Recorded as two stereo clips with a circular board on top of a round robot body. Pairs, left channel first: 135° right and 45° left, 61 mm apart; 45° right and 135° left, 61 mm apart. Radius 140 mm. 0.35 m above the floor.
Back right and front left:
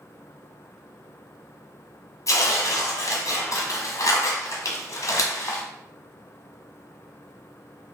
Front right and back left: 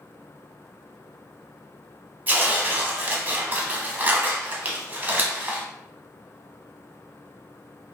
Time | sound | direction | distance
2.3 | tearing paper | 160° right | 0.7 m